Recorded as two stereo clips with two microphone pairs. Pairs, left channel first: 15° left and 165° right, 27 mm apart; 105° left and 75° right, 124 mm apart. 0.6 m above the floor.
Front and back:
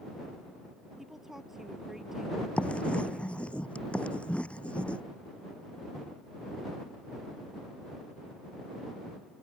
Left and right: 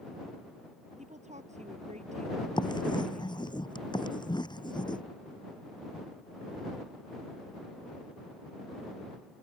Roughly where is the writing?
Ahead left.